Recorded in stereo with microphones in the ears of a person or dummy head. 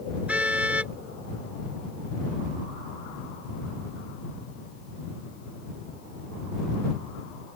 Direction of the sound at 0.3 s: 5° right (ahead or behind).